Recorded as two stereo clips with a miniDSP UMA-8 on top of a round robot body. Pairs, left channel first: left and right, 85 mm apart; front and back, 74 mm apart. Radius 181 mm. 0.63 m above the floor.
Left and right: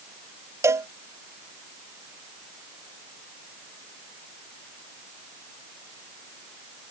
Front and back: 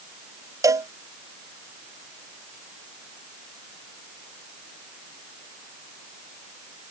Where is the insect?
No insect in this recording.